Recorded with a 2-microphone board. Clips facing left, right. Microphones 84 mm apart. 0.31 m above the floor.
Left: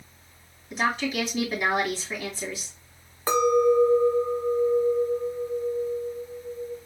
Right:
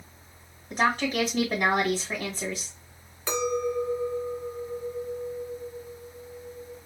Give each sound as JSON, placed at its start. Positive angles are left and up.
{"t": 0.7, "sound": "a woman speaking", "side_deg": -55, "distance_m": 2.0}
{"t": 3.3, "sound": "a clink", "side_deg": 45, "distance_m": 1.0}